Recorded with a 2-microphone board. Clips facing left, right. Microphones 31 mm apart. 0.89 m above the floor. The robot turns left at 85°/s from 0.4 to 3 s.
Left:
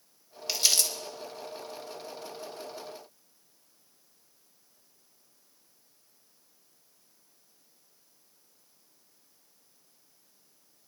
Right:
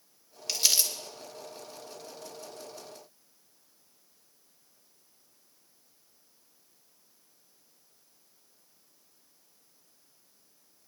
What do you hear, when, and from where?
0.5 s crumpling: 10° left (ahead or behind), 2.5 m; by 0.9 s 25° right (ahead or behind), 2.5 m